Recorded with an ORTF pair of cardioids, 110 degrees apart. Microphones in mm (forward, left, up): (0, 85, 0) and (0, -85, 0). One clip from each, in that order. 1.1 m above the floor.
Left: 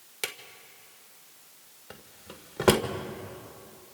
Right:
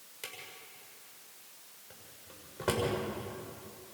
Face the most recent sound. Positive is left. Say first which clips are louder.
# left 8 dB
turn(degrees=65)